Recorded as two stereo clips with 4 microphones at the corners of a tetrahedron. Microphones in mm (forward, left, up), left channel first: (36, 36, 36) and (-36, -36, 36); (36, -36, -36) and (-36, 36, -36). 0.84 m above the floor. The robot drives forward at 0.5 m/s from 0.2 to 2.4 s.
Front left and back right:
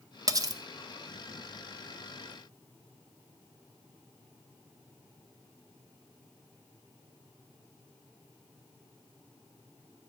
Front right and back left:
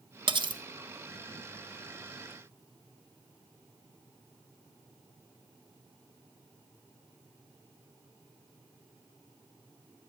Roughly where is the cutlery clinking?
Behind.